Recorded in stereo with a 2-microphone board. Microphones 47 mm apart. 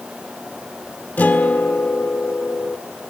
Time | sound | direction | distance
1.2 | a guitar | 40° left (ahead or behind) | 1.4 m